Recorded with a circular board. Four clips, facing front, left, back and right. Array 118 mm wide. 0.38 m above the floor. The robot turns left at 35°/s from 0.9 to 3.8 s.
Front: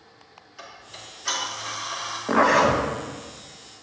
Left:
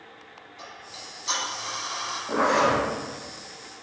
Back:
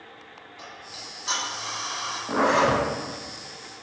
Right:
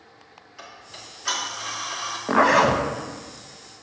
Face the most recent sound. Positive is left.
turn(degrees=-110)